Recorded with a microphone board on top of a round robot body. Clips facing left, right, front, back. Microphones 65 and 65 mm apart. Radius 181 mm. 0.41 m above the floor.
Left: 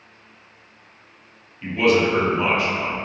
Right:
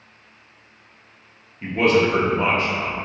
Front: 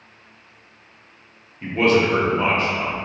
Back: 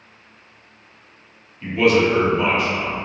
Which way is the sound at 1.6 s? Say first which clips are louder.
Even, back 1 dB; 45° right.